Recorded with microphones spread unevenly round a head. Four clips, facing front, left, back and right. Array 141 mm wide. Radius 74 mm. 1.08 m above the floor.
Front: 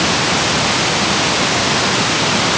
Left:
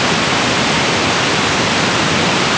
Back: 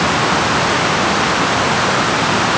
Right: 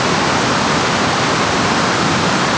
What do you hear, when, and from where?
Only background noise.